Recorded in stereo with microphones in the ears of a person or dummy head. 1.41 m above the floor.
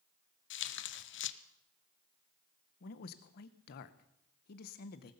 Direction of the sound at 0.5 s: 60° left (ahead or behind).